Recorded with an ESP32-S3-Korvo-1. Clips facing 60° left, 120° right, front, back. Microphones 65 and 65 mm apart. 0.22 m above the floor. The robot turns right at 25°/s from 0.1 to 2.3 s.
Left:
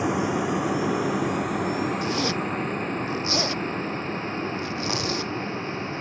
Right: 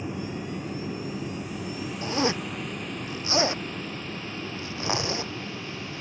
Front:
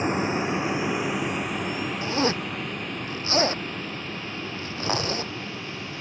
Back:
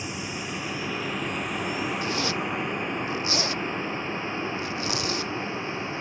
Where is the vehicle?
50° left; by 6.0 s 120° left.